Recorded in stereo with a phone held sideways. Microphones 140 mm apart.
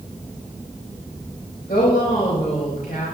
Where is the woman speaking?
85° left, 5.5 m.